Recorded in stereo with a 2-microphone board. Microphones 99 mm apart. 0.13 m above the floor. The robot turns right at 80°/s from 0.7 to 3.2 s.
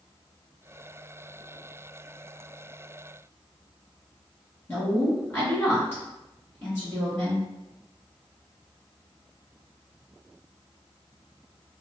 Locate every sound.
4.7 s a woman speaking: 20° left (ahead or behind), 1.8 m